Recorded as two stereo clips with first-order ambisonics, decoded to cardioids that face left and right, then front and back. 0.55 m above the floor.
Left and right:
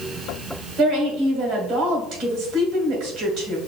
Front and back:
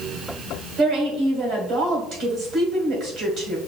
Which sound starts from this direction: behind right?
A woman speaking, at 0.8 s.